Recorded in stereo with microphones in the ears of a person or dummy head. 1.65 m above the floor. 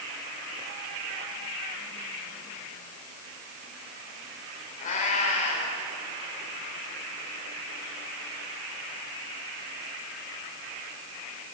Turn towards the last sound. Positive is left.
turn(degrees=45)  # may be behind; listen again after turning